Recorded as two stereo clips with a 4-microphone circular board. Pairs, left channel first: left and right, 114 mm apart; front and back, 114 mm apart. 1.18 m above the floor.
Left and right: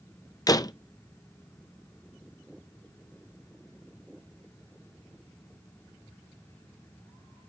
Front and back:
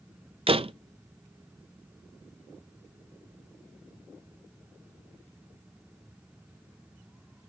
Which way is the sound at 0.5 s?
145° left.